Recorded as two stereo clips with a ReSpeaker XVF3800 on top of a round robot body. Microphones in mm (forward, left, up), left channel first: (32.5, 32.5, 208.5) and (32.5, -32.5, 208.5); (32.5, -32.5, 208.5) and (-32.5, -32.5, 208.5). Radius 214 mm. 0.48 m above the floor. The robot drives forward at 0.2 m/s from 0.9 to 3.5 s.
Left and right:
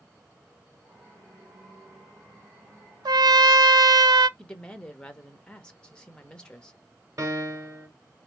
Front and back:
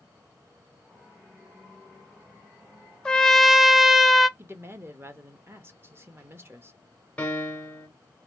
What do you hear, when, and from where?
3.0 s a trumpet: 80° right, 0.5 m; by 4.3 s 90° right, 0.5 m
4.4 s a woman speaking: 160° left, 0.9 m
7.2 s a piano: 65° right, 1.6 m